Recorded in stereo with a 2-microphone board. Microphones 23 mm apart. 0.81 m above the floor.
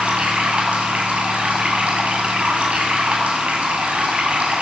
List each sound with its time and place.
0.0 s running water: 55° right (ahead or behind), 6 m